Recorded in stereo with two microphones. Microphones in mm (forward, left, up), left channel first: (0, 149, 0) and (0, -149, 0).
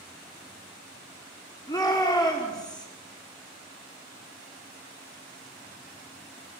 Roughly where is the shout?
Centre.